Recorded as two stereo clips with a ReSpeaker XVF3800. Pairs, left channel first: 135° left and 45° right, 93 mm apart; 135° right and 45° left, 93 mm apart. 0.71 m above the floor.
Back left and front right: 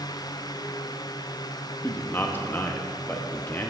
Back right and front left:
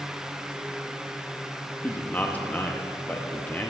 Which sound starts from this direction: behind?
A man speaking, at 1.8 s.